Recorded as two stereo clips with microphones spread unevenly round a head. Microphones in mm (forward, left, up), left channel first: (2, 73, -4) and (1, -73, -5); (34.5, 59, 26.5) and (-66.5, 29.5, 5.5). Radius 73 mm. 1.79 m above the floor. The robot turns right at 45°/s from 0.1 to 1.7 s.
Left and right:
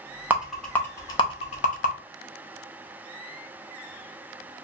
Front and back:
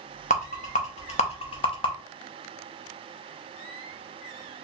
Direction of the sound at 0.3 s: 10° right.